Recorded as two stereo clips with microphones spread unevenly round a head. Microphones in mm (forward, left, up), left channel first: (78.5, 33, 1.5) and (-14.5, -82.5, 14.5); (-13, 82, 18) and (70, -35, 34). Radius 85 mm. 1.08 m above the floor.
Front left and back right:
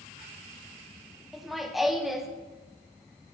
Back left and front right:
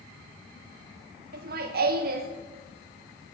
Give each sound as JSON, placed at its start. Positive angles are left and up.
{"t": 1.3, "sound": "laughter", "azimuth_deg": -40, "distance_m": 1.9}